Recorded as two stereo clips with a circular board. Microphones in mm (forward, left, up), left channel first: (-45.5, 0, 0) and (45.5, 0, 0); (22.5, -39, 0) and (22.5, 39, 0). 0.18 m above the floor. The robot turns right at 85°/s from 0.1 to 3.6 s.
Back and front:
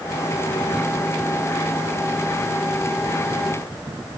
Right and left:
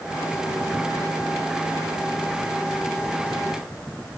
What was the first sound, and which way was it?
Only background noise.